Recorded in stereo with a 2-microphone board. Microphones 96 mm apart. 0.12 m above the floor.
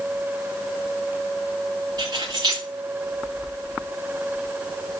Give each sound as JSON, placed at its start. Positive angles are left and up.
{"t": 2.0, "sound": "keys jangling", "side_deg": -50, "distance_m": 9.5}